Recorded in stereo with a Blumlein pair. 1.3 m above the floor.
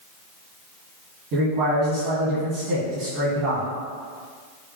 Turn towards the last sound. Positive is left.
turn(degrees=-45)